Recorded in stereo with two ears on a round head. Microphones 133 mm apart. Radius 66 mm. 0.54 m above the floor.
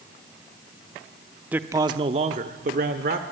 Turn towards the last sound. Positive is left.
turn(degrees=-60)  # may be behind; listen again after turning